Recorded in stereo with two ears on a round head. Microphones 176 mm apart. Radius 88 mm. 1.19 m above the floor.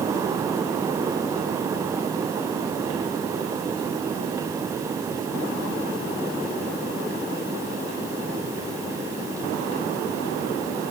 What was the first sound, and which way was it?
Only background noise.